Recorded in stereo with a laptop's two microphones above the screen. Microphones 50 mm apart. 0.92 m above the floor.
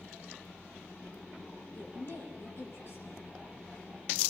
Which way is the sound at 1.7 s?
50° left (ahead or behind).